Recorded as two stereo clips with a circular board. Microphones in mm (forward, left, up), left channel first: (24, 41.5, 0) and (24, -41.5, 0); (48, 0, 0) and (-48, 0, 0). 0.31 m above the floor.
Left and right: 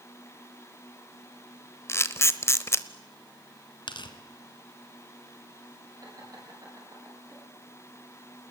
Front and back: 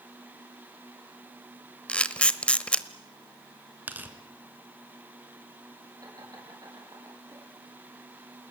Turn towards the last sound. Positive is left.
turn(degrees=-130)